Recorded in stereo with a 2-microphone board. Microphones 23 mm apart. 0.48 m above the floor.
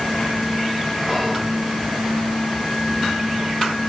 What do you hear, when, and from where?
1.1 s whispering: 10° left (ahead or behind), 1.2 m